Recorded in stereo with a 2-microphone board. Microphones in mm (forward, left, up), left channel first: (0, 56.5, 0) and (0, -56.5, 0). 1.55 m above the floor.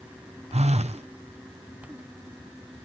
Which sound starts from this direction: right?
A phone buzzing, at 0.5 s.